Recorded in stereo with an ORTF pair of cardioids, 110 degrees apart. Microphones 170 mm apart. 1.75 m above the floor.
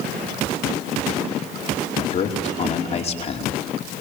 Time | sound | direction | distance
2.0 | a man speaking | 40° left | 5 m